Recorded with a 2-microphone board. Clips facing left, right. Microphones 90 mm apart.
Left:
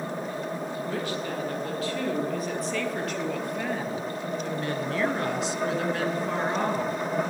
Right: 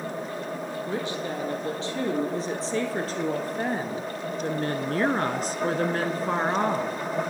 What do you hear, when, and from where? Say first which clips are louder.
0.8 s a woman speaking: right 2 dB; 25° right (ahead or behind), 4.5 m; by 7.0 s 30° right (ahead or behind), 1.8 m